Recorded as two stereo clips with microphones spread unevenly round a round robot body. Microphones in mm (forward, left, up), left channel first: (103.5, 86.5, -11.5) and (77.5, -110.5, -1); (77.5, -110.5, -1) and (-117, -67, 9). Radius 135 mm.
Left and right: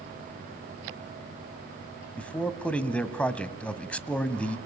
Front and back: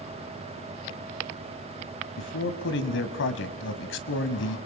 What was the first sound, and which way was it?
A man speaking, straight ahead.